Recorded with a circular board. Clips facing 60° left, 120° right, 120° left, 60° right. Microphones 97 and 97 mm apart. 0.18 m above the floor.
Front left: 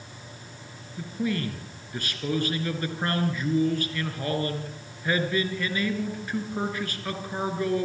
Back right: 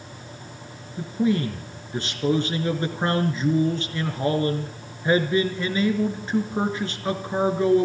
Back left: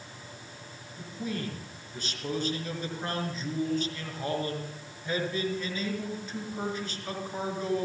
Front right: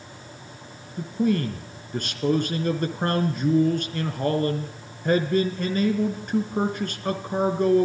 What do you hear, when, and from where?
1.0 s a man speaking: 60° right, 3 m